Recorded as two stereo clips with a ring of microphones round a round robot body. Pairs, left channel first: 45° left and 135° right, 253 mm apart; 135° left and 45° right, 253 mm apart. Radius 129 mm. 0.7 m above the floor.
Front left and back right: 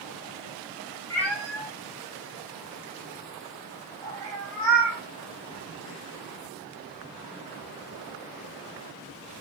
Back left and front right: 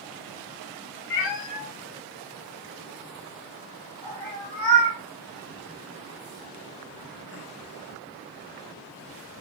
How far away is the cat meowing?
About 1.3 m.